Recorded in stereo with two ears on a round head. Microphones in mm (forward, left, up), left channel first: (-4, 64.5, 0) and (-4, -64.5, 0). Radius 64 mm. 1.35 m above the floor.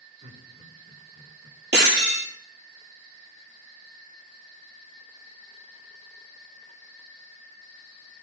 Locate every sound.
0.2 s laughter: 55° right (ahead or behind), 5 m; by 1.6 s 45° right (ahead or behind), 4.5 m
1.7 s breaking glass: 80° right, 8 m